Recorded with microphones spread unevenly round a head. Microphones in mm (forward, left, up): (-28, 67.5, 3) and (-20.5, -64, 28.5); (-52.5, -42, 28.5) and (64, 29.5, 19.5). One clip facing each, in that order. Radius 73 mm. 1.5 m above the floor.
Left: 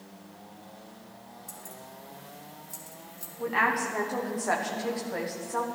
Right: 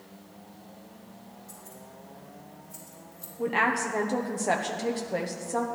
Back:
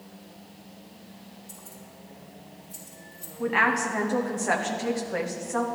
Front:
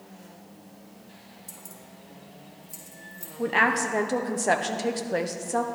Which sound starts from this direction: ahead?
A woman speaking, at 3.4 s.